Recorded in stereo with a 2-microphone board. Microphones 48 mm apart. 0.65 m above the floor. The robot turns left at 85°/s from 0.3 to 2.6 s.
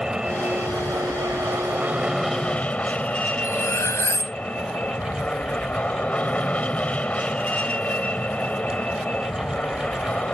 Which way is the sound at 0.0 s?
10° right.